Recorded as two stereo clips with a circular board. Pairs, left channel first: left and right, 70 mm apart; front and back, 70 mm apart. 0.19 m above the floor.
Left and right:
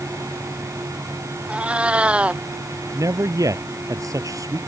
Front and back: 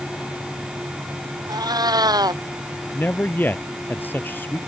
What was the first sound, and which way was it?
A cat meowing, 165° right.